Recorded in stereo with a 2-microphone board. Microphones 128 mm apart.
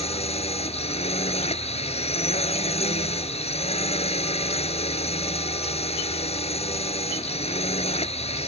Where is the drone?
55° left (ahead or behind).